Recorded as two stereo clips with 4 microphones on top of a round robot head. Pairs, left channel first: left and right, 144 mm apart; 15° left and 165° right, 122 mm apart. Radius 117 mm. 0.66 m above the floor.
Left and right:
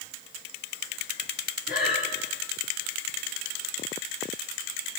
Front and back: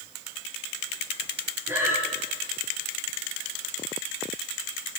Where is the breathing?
125° left, 5.5 m.